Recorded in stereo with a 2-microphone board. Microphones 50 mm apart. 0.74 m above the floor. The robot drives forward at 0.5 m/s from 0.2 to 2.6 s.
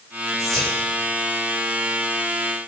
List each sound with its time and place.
0.4 s whispering: 10° left (ahead or behind), 3 m